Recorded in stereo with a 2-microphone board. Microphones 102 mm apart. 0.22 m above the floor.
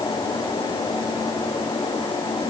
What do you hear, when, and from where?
Only background noise.